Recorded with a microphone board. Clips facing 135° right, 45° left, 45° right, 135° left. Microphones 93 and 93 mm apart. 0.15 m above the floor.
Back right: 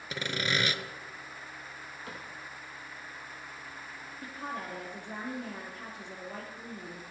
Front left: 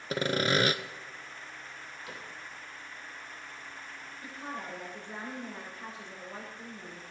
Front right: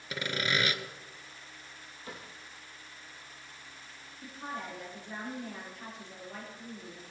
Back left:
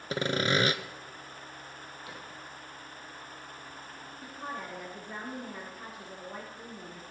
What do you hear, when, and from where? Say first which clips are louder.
0.1 s sawing: front left 5 dB, back left 5 dB; 85° left, 0.5 m
2.1 s a cupboard door: back right 1 dB, front right 2 dB; 95° right, 4 m
4.2 s a woman speaking: back right 2 dB, even; 140° right, 4 m